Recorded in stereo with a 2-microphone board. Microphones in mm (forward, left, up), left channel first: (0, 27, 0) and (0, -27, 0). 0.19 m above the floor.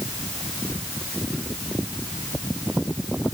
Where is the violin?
No violin in this recording.